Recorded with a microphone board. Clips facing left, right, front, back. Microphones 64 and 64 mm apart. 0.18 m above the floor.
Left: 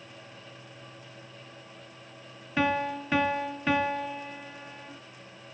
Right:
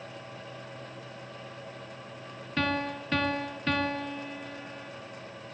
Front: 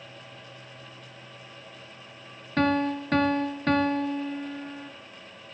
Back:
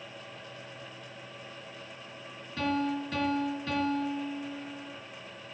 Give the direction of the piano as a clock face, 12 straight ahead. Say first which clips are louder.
Left 3 dB, front 6 dB; 12 o'clock.